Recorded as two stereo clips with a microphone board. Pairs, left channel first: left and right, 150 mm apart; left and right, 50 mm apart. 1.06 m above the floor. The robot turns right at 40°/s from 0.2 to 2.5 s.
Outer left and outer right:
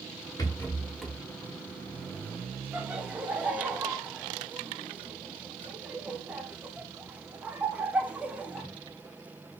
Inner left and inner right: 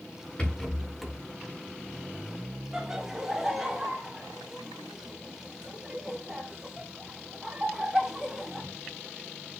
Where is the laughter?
10° right (ahead or behind), 0.9 m.